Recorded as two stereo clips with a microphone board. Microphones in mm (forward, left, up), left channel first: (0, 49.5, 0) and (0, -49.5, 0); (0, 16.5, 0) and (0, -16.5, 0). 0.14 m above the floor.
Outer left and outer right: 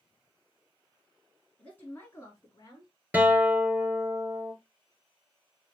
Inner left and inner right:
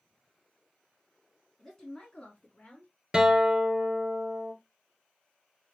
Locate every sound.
1.6 s a woman speaking: 10° left (ahead or behind), 1.1 m; by 2.9 s 45° left (ahead or behind), 1.5 m
3.1 s a guitar: 20° right (ahead or behind), 1.0 m